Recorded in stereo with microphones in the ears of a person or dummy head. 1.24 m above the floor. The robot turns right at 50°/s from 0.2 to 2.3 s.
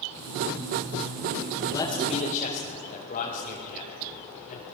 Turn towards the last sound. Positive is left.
turn(degrees=45)  # may be behind; listen again after turning